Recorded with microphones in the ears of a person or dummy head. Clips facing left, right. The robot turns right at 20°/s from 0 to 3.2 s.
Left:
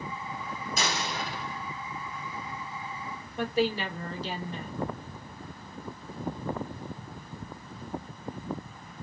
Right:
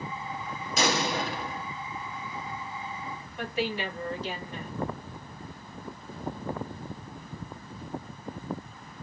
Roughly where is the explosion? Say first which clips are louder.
Right 7 dB; right.